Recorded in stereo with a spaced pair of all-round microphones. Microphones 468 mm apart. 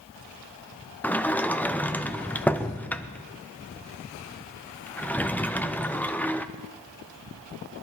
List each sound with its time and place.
1.0 s a sliding door: 5° left (ahead or behind), 0.6 m